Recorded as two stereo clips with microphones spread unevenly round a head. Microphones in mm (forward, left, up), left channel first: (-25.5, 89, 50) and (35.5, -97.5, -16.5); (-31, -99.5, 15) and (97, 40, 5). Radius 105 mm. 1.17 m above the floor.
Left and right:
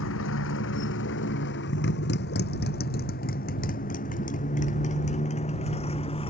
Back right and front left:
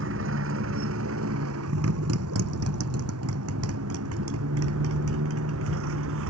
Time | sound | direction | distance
0.0 | a motorcycle | 85° left | ?